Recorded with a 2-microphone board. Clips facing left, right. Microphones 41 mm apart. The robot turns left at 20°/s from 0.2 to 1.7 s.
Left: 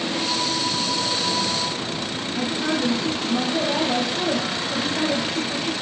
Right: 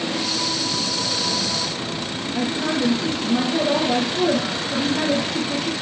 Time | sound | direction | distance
2.3 | a woman speaking | 45° right (ahead or behind) | 2.5 m